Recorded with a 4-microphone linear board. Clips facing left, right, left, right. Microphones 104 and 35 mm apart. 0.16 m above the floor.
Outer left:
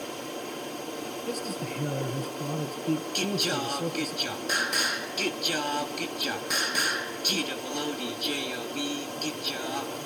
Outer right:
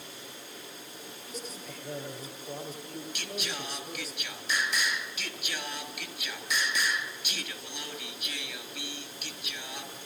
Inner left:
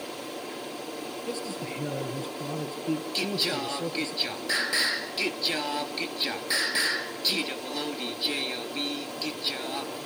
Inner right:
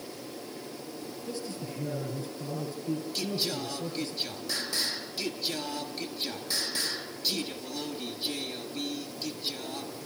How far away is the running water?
About 3.5 m.